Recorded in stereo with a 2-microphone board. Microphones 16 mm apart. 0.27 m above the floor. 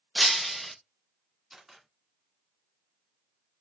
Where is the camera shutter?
20° right (ahead or behind), 1.4 m.